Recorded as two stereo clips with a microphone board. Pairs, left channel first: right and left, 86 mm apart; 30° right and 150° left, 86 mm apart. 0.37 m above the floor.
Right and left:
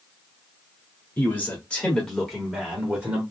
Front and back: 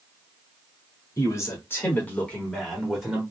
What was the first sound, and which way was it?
A man speaking, 35° right.